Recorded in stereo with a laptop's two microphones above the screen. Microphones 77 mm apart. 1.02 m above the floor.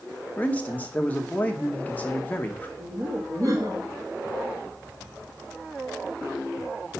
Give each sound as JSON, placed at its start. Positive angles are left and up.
{"t": 0.4, "sound": "a man speaking", "side_deg": 20, "distance_m": 0.8}
{"t": 2.8, "sound": "laughter", "side_deg": -50, "distance_m": 1.2}